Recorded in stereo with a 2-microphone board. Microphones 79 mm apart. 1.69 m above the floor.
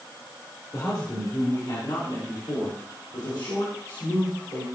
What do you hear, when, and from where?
0.7 s a man speaking: 55° left (ahead or behind), 3 m; by 4.7 s 70° left (ahead or behind), 4.5 m